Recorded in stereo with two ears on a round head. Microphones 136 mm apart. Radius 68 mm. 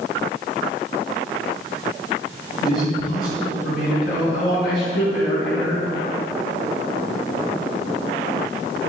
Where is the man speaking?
65° left (ahead or behind), 3.5 m; by 5.9 s 75° left (ahead or behind), 5.5 m.